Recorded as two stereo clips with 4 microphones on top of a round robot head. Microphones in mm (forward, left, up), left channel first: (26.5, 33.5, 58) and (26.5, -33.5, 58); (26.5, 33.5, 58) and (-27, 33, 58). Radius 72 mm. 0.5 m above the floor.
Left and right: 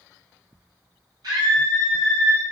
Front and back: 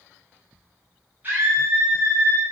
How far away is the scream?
About 4 m.